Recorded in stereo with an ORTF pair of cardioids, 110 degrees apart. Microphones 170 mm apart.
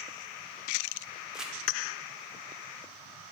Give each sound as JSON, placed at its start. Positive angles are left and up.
{"t": 1.3, "sound": "crumpling", "azimuth_deg": -5, "distance_m": 1.7}